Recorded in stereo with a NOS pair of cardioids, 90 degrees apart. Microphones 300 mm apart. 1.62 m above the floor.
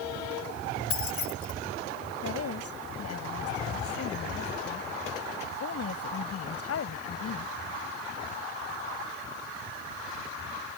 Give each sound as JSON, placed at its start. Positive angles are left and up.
{"t": 0.9, "sound": "keys jangling", "azimuth_deg": 50}
{"t": 2.2, "sound": "a woman speaking", "azimuth_deg": 55}